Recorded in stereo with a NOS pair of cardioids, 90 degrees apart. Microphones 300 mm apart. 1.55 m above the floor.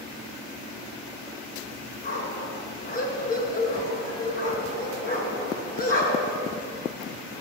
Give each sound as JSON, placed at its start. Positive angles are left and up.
{"t": 2.0, "sound": "a dog barking", "azimuth_deg": 30, "distance_m": 4.0}